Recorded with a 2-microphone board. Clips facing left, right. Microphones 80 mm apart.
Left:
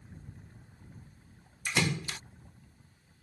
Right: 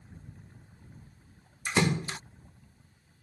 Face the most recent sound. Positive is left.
turn(degrees=-30)  # may be behind; listen again after turning